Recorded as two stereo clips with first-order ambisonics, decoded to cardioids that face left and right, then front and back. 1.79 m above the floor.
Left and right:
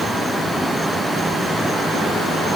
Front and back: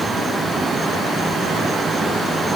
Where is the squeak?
No squeak in this recording.